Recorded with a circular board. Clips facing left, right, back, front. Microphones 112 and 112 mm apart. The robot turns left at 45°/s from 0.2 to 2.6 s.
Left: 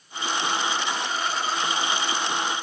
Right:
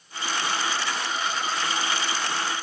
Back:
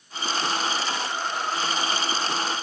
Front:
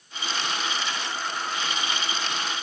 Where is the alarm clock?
No alarm clock in this recording.